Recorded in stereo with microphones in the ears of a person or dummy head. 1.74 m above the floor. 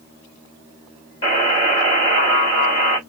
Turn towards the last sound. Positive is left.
turn(degrees=20)  # may be behind; listen again after turning